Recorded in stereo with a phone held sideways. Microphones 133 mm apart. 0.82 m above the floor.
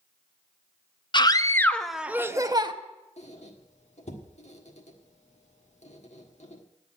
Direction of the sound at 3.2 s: 60° left (ahead or behind).